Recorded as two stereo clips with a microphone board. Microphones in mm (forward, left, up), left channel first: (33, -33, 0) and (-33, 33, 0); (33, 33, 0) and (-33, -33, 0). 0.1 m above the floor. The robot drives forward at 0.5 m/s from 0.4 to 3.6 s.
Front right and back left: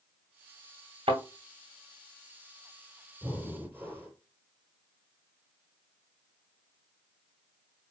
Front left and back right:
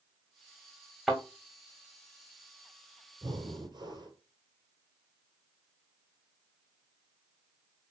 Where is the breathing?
155° right, 1.5 m; by 4.2 s 160° right, 1.6 m.